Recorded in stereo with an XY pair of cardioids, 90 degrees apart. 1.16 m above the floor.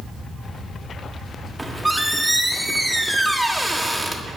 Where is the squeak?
10° right, 1.5 m.